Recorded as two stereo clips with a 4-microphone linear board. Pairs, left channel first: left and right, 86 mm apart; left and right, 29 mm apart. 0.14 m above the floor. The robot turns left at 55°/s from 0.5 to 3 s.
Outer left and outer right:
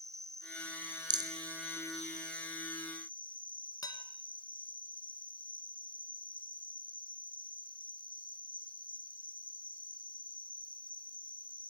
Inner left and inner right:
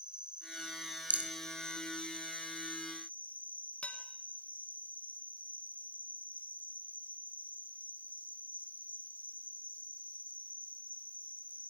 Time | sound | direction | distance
0.0 | an insect | 140° right | 1.0 m
1.1 | a rattle | 60° right (ahead or behind) | 0.7 m
3.8 | dishes clattering | 50° left (ahead or behind) | 1.1 m